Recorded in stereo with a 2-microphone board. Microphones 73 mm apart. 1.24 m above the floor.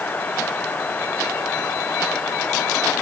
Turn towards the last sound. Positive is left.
No sound to turn to.